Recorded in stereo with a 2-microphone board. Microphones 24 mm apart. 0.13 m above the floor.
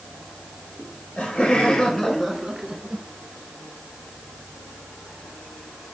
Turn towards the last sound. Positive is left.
turn(degrees=-45)  # may be behind; listen again after turning